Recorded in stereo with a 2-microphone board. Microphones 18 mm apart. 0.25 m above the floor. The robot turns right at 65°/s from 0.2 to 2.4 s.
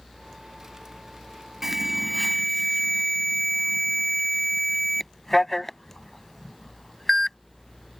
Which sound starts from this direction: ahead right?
An alarm, at 1.6 s.